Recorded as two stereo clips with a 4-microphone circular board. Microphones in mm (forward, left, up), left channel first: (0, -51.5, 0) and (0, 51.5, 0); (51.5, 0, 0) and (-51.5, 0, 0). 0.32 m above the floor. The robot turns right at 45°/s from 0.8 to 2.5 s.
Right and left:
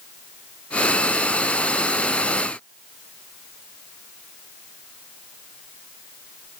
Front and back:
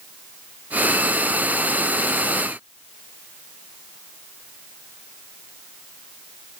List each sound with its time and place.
Only background noise.